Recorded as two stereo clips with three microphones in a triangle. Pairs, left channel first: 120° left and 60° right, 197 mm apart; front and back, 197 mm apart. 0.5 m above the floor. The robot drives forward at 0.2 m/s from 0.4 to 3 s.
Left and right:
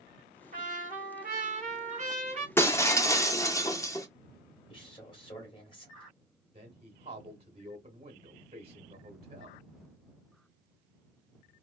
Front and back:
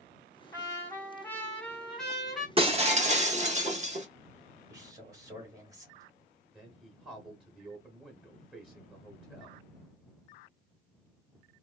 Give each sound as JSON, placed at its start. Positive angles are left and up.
{"t": 0.5, "sound": "a trumpet", "azimuth_deg": -70, "distance_m": 1.3}
{"t": 2.6, "sound": "breaking glass", "azimuth_deg": -175, "distance_m": 0.6}
{"t": 4.7, "sound": "a man speaking", "azimuth_deg": 130, "distance_m": 1.4}
{"t": 6.5, "sound": "a man speaking", "azimuth_deg": -95, "distance_m": 1.0}